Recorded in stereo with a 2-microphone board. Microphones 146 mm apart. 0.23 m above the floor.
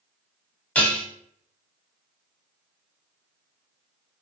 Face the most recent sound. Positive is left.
turn(degrees=10)  # may be behind; listen again after turning